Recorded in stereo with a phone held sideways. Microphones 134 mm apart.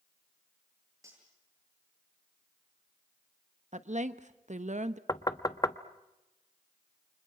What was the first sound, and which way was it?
Cutlery clinking, 20° right (ahead or behind).